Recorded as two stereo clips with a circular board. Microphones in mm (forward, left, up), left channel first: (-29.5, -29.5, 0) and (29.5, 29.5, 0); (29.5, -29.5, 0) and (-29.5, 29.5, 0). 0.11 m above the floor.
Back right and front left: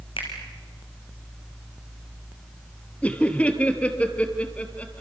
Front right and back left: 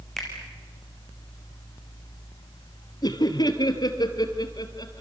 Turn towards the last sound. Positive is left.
turn(degrees=-65)